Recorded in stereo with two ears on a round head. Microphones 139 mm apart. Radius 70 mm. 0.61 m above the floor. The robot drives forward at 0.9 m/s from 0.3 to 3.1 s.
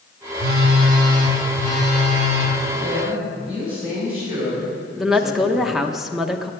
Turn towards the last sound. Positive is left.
turn(degrees=0)  # may be behind; listen again after turning